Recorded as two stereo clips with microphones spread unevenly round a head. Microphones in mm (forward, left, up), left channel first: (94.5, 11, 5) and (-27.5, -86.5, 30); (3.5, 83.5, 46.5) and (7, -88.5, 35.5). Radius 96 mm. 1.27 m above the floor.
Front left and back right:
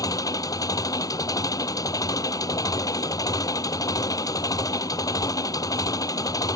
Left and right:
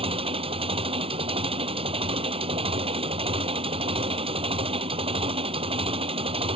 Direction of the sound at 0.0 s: 30° right.